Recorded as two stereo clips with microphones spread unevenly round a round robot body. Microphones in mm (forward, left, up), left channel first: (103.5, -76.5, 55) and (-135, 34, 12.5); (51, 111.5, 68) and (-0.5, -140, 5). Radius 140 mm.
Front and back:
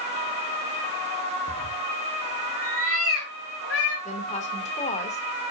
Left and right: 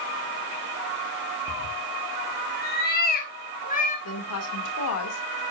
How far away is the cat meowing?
About 1.0 m.